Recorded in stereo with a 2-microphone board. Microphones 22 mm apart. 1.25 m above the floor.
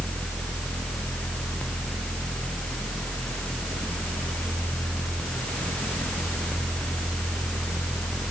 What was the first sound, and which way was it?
Only background noise.